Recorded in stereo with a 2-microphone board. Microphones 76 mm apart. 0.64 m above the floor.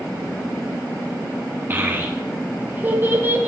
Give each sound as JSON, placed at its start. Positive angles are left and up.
{"t": 1.7, "sound": "a child speaking", "side_deg": -25, "distance_m": 0.6}